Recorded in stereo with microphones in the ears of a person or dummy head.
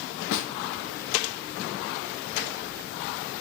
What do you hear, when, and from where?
0.3 s a snare drum: 65° left (ahead or behind), 1.0 m